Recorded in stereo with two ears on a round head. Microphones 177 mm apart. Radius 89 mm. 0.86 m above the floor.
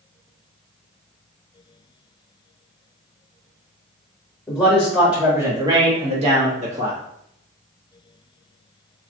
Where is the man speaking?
10° left (ahead or behind), 1.0 m; by 7.0 s 40° right (ahead or behind), 1.4 m.